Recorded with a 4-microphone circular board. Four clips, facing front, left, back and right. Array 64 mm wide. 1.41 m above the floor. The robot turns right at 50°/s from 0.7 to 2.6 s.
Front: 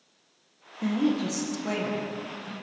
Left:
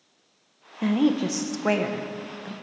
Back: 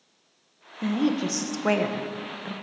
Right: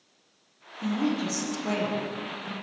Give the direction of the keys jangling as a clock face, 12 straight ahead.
No keys jangling in this recording.